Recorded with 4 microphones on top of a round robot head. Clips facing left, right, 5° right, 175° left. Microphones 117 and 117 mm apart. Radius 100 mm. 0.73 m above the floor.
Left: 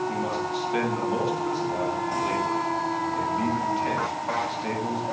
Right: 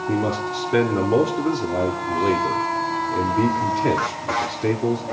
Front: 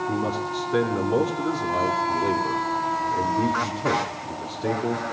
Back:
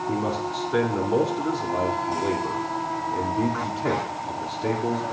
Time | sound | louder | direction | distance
0.1 | a man speaking | right 5 dB, even | 90° right | 2.5 m